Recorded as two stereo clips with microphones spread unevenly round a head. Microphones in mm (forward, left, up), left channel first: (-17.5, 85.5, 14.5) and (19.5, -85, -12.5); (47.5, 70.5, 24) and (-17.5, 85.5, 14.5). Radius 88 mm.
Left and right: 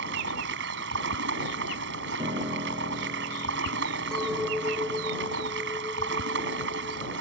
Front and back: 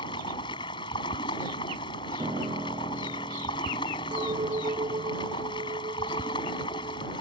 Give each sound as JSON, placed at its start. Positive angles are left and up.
{"t": 0.0, "sound": "running water", "azimuth_deg": -45}
{"t": 2.2, "sound": "a piano", "azimuth_deg": -145}
{"t": 4.1, "sound": "a clink", "azimuth_deg": -175}